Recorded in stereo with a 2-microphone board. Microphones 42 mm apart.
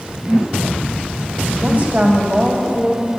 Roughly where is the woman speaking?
Right.